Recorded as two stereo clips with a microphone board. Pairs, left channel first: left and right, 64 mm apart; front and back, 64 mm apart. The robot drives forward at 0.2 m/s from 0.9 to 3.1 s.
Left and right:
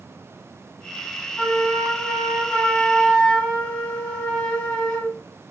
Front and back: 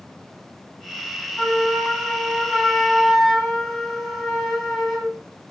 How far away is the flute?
About 0.9 m.